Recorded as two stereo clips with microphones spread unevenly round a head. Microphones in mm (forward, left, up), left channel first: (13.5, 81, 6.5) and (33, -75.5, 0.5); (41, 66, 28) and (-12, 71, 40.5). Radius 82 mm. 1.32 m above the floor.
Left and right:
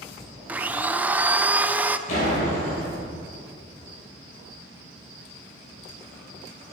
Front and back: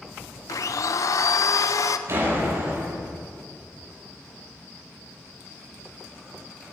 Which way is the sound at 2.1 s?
145° left.